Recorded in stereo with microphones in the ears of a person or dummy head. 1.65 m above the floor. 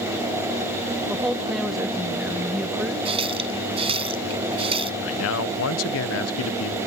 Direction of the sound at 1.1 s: 5° right (ahead or behind).